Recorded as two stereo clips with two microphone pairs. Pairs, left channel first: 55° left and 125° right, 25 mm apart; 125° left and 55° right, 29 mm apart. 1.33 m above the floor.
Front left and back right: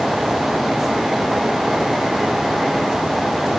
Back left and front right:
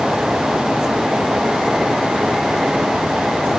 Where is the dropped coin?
No dropped coin in this recording.